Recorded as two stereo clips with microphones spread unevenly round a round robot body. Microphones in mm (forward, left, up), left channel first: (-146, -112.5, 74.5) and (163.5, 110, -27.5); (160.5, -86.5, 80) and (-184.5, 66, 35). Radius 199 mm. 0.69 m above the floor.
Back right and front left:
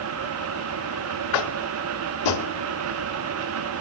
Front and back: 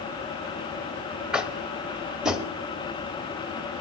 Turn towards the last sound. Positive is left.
turn(degrees=-120)